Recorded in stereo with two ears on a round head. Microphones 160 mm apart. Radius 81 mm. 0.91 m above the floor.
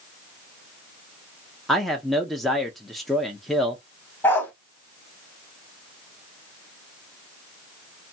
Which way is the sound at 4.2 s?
10° left (ahead or behind).